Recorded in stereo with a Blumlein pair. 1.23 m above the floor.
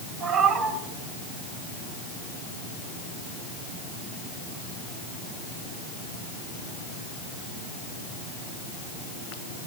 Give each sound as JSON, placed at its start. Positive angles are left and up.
{"t": 0.2, "sound": "a cat meowing", "azimuth_deg": -25, "distance_m": 2.5}